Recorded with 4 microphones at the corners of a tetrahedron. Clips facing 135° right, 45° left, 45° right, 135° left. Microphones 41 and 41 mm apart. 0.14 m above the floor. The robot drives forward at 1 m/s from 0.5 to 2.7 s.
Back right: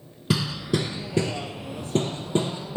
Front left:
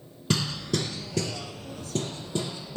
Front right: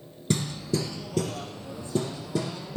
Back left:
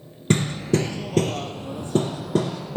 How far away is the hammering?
About 0.9 m.